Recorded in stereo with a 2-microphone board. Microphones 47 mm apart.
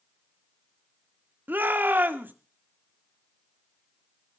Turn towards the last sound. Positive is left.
turn(degrees=-40)  # may be behind; listen again after turning